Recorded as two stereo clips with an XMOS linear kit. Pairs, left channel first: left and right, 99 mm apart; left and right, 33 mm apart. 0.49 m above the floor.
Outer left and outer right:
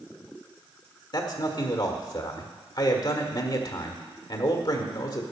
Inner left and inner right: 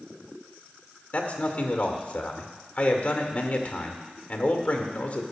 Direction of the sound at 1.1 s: 45° left (ahead or behind).